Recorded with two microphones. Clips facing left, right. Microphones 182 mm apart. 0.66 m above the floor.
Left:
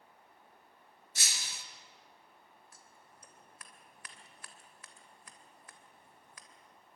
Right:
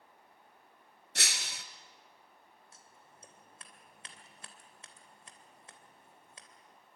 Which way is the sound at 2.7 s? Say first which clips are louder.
Even; 25° right (ahead or behind).